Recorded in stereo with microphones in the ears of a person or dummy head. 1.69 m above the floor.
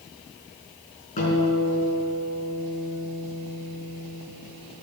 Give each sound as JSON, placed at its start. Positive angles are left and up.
{"t": 1.2, "sound": "a guitar", "side_deg": 40, "distance_m": 5.5}